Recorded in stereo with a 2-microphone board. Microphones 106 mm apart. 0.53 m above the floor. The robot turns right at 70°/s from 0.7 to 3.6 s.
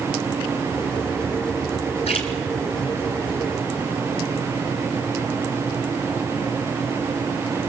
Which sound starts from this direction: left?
A splash, at 2.1 s.